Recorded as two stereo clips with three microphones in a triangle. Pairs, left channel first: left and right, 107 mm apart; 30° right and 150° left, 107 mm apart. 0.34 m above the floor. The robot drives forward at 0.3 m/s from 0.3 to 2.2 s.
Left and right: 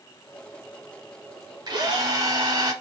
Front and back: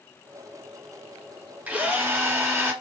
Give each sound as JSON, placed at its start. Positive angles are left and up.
{"t": 1.7, "sound": "a drill", "azimuth_deg": -135, "distance_m": 0.9}